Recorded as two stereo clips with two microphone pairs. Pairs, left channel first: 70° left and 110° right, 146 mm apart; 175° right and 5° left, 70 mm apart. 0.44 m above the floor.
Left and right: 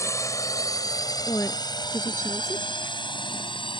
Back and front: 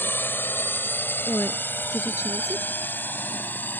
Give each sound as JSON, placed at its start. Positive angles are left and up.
{"t": 0.0, "sound": "a drone", "azimuth_deg": 135}
{"t": 1.3, "sound": "a woman speaking", "azimuth_deg": 140}